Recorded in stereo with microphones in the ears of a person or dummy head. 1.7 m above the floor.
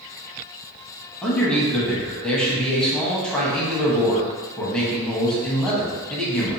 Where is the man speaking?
5° left (ahead or behind), 0.9 m.